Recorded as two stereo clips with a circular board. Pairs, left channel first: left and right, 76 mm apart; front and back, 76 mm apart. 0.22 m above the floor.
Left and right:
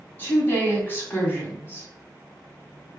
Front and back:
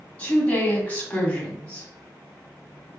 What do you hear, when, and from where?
0.2 s a woman speaking: 55° left, 1.9 m